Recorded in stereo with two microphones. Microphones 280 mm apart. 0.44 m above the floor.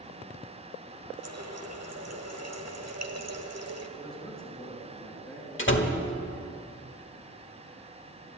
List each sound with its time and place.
1.2 s a running tap: 65° right (ahead or behind), 1.2 m
4.0 s a man speaking: 5° left (ahead or behind), 4.5 m
5.6 s a door slam: 45° left (ahead or behind), 1.4 m